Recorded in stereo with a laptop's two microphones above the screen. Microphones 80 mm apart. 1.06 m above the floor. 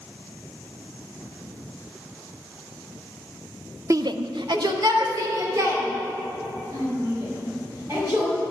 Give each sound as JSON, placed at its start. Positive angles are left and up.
{"t": 3.9, "sound": "a shout", "side_deg": -40, "distance_m": 0.6}